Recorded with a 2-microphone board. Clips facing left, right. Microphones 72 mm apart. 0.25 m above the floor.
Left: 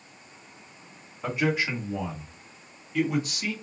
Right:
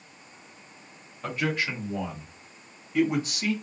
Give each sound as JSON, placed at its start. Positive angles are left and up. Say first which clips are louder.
{"t": 1.2, "sound": "a man speaking", "louder": "left 2 dB", "side_deg": 10, "distance_m": 1.4}